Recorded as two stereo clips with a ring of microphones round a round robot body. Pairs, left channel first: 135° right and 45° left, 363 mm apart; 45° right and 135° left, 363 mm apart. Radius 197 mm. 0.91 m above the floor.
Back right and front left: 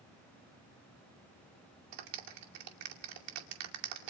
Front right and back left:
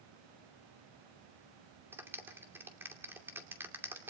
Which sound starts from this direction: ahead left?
A clap, at 1.9 s.